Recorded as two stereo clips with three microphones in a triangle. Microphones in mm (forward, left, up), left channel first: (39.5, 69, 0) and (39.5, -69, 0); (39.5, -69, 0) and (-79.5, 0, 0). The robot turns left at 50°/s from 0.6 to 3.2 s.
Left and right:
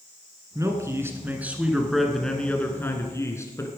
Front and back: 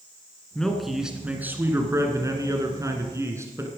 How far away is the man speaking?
About 1.6 m.